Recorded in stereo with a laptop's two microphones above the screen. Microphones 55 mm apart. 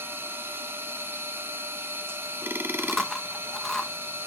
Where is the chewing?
5° left (ahead or behind), 1.1 m.